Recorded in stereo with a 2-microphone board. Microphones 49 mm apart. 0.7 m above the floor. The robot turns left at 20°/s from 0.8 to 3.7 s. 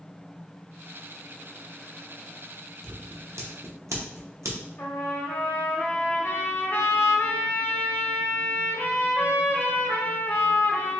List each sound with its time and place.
2.8 s scissors: 75° right (ahead or behind), 0.6 m; by 4.6 s 80° right, 0.6 m
4.8 s a trumpet: 50° left (ahead or behind), 0.8 m